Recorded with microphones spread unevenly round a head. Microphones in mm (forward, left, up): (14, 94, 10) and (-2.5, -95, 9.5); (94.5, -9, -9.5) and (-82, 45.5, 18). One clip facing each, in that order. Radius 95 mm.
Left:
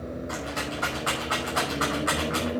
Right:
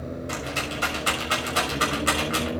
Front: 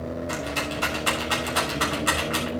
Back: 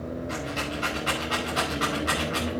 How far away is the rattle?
About 6 m.